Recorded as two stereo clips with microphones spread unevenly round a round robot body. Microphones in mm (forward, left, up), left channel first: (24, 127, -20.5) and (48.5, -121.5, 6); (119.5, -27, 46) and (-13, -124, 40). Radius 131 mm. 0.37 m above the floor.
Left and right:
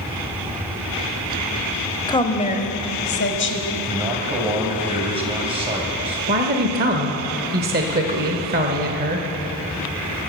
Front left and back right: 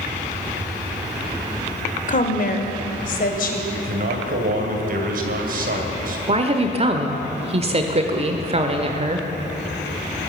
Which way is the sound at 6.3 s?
125° right.